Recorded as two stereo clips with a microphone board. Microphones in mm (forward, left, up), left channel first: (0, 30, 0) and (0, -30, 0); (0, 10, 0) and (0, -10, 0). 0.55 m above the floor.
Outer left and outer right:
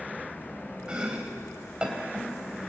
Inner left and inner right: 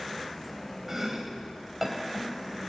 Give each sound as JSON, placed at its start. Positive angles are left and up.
{"t": 0.9, "sound": "chopping", "side_deg": -15, "distance_m": 3.5}